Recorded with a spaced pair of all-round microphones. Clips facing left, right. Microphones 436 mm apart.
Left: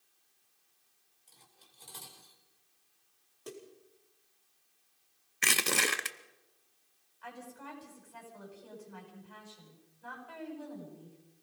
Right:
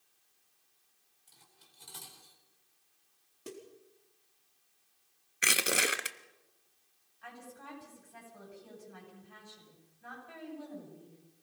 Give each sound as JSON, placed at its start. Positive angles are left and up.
{"t": 1.3, "sound": "cutlery clinking", "side_deg": -25, "distance_m": 3.5}
{"t": 3.5, "sound": "a snare drum", "side_deg": -40, "distance_m": 4.0}
{"t": 5.4, "sound": "crushing", "side_deg": 10, "distance_m": 0.9}
{"t": 7.2, "sound": "a woman speaking", "side_deg": -35, "distance_m": 9.0}